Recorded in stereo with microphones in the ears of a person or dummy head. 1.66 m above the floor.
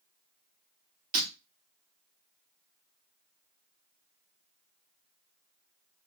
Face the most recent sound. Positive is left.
turn(degrees=-30)  # may be behind; listen again after turning